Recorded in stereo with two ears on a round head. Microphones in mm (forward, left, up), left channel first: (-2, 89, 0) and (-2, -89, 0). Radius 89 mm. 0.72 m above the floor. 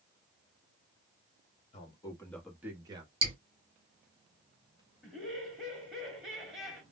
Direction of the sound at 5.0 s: Centre (ahead or behind).